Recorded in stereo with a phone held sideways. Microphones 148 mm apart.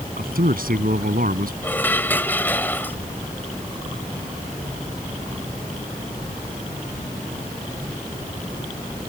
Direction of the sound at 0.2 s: 75° right (ahead or behind).